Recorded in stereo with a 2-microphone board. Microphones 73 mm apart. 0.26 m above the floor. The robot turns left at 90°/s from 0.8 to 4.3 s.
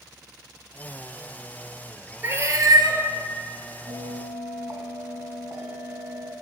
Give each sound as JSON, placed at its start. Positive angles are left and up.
{"t": 2.2, "sound": "a cat meowing", "azimuth_deg": -30, "distance_m": 0.9}
{"t": 3.9, "sound": "a bell", "azimuth_deg": -100, "distance_m": 2.0}